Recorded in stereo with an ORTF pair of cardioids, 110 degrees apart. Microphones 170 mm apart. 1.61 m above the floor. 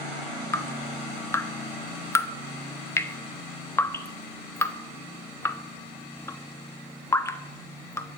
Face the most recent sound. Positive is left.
turn(degrees=15)